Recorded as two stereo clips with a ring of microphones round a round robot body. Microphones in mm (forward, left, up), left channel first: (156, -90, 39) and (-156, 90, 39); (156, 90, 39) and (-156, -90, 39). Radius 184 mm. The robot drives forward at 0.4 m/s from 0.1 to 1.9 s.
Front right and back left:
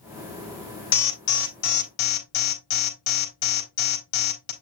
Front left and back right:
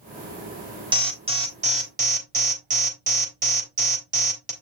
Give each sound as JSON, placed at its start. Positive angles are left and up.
{"t": 0.9, "sound": "an alarm", "azimuth_deg": -75, "distance_m": 3.5}